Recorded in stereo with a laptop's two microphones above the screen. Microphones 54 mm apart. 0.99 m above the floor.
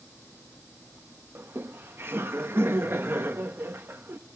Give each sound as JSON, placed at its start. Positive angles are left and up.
{"t": 1.4, "sound": "laughter", "side_deg": -40, "distance_m": 0.8}